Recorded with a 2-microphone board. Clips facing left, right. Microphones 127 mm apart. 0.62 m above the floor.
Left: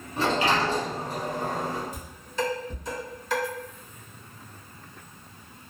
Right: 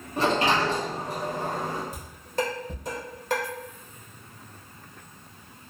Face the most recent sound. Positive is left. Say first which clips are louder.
# right 2 dB
turn(degrees=-50)  # may be behind; listen again after turning